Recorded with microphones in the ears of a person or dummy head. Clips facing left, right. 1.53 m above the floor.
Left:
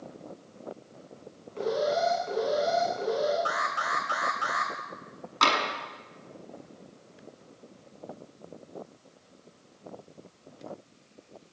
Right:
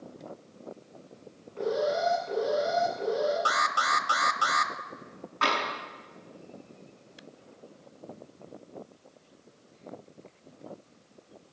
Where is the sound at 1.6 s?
45° left (ahead or behind), 9.5 m.